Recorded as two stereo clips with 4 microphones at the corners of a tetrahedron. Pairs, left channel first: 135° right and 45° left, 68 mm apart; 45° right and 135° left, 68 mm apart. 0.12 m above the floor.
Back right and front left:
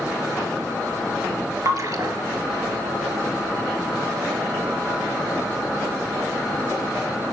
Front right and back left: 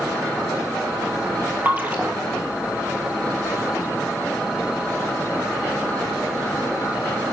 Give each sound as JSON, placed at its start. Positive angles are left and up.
{"t": 1.6, "sound": "a splash", "azimuth_deg": 75, "distance_m": 1.7}